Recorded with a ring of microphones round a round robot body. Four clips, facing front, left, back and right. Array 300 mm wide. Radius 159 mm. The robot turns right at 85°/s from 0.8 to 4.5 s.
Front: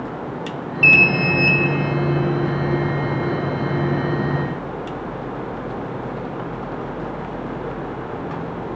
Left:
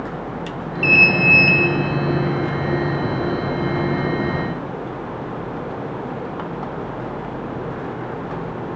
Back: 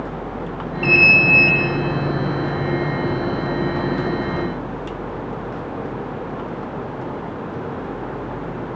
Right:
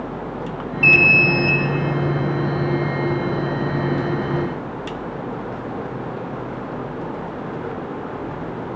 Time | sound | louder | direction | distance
0.8 | an alarm | even, back 1 dB | 5° right | 5.5 m